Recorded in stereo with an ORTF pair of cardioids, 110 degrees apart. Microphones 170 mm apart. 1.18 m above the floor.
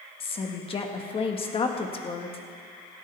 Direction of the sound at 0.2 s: 35° left.